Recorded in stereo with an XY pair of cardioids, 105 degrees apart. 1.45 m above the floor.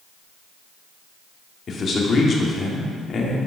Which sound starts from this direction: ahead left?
A man speaking, at 1.7 s.